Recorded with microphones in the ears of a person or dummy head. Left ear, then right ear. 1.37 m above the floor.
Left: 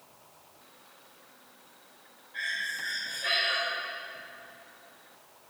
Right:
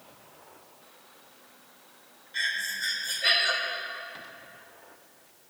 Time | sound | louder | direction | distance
2.3 | breathing | right 3 dB | 70° right (ahead or behind) | 1.3 m